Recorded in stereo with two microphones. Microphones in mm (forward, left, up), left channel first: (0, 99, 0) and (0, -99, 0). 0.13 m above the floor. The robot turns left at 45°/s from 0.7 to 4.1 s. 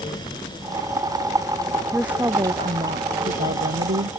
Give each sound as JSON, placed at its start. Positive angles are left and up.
{"t": 1.9, "sound": "a woman speaking", "azimuth_deg": 0}